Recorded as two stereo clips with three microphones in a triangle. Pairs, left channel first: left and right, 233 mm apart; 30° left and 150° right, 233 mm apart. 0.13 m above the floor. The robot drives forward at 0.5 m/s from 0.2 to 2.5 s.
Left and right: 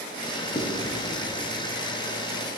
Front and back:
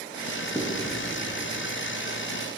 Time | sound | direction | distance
0.6 | writing | 130° left | 2.5 m